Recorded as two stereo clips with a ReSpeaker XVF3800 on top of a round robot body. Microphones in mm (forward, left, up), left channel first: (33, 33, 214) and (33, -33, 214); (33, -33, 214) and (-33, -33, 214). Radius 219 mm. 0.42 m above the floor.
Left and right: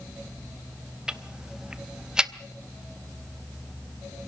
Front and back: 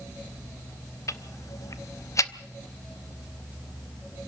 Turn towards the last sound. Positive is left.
turn(degrees=-15)